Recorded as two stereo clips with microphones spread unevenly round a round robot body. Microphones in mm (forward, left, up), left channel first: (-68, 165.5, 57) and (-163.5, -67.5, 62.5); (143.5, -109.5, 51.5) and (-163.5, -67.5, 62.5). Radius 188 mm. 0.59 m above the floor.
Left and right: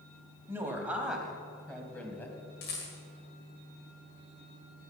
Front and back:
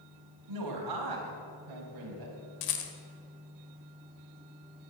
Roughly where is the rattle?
Ahead.